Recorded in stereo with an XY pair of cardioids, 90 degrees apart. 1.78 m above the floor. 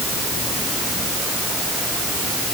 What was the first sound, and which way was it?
Only background noise.